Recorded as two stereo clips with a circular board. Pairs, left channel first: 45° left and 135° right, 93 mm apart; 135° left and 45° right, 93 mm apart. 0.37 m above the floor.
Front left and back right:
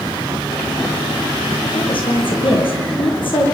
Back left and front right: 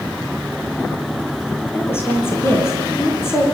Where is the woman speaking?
70° left, 9.5 m.